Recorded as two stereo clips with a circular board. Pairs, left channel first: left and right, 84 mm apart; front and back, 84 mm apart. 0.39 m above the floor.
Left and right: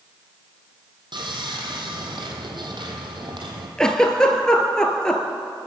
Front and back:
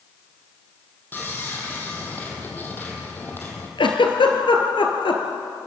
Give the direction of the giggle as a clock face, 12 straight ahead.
12 o'clock.